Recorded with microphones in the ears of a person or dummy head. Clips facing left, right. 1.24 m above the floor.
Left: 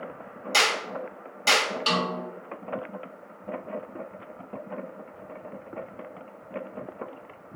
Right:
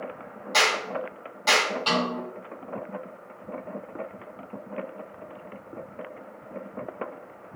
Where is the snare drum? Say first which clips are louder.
Right 2 dB; 25° left (ahead or behind), 1.8 m.